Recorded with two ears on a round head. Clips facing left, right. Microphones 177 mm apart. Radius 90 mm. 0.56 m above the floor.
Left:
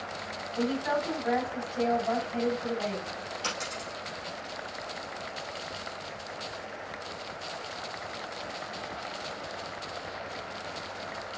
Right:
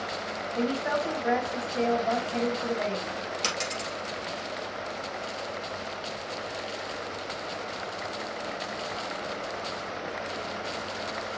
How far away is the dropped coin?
About 2.5 m.